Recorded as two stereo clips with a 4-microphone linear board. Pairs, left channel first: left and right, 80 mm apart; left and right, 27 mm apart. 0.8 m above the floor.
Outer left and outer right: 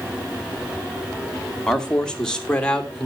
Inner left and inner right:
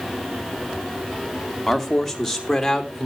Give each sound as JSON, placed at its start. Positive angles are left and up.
{"t": 1.7, "sound": "a man speaking", "side_deg": 10, "distance_m": 1.7}